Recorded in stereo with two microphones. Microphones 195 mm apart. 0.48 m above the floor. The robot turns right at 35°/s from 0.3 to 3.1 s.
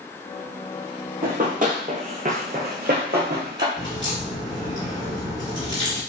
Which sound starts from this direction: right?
Running footsteps, at 1.2 s.